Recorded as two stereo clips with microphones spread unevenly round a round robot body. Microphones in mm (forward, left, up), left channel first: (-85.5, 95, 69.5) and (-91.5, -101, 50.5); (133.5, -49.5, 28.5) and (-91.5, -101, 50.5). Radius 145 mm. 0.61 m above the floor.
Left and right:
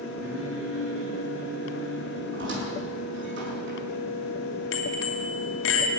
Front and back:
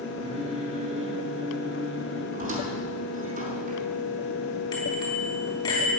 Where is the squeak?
115° right, 5.5 m.